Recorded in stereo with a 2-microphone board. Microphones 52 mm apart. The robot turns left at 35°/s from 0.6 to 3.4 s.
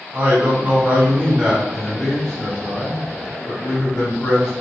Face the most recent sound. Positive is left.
turn(degrees=130)